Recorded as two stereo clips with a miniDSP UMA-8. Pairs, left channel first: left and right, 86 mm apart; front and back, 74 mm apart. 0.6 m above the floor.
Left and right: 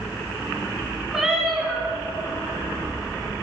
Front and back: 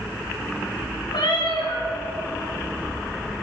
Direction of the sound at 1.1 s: 5° right.